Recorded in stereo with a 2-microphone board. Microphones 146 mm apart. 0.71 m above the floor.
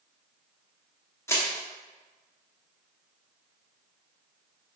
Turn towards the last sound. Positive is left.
turn(degrees=20)  # may be behind; listen again after turning